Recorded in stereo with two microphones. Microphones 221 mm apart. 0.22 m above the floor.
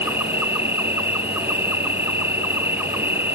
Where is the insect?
10° right (ahead or behind).